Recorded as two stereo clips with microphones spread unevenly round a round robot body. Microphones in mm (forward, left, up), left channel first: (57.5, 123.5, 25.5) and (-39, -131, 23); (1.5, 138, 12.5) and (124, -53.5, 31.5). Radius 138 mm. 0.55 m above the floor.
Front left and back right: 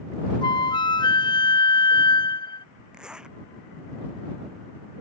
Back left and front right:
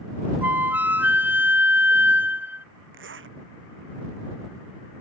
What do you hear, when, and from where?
0.4 s a flute: 25° left
2.9 s a zipper: 25° right